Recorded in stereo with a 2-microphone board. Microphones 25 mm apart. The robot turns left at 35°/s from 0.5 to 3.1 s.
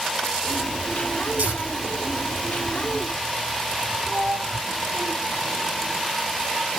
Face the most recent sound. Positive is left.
turn(degrees=-30)  # may be behind; listen again after turning